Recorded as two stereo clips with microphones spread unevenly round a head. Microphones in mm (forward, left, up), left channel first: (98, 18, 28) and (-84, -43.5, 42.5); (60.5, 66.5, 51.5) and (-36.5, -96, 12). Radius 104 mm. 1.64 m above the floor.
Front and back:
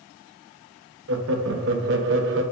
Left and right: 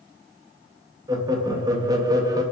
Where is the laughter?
170° left, 0.6 m.